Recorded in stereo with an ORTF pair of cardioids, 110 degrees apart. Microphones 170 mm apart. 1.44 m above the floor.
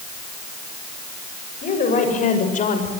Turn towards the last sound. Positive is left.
turn(degrees=50)